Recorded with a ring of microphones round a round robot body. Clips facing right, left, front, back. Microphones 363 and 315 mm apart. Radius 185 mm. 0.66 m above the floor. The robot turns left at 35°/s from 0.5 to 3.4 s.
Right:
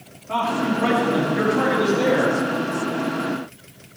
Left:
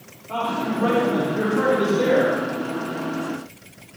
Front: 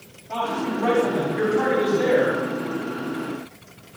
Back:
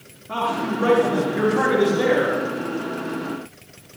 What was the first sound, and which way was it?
A man speaking, 140° right.